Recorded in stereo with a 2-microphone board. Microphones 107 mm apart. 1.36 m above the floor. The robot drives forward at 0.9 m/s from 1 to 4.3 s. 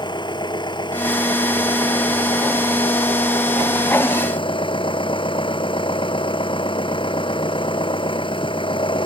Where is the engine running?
45° left (ahead or behind); by 9.1 s 50° left (ahead or behind).